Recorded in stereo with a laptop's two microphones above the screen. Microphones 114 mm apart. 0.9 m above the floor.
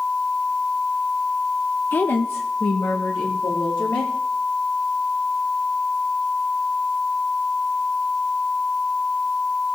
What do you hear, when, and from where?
1.9 s a woman speaking: 15° left (ahead or behind), 0.7 m; by 4.1 s 20° left (ahead or behind), 2.5 m